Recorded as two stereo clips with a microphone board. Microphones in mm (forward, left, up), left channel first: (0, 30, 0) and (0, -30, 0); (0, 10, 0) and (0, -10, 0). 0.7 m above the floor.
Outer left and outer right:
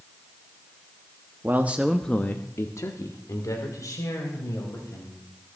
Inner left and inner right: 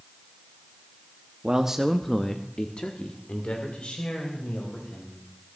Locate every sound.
1.4 s a man speaking: 35° right (ahead or behind), 1.1 m; by 5.2 s 70° left (ahead or behind), 5 m